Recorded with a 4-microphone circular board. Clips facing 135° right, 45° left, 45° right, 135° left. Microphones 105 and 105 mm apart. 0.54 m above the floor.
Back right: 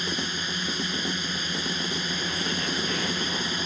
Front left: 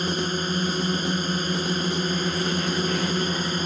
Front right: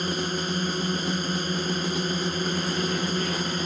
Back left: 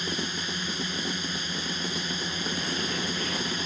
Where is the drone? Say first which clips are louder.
Front left 6 dB, front right 5 dB; straight ahead.